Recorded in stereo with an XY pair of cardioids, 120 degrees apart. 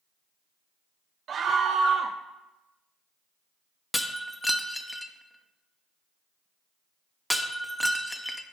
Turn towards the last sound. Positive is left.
turn(degrees=5)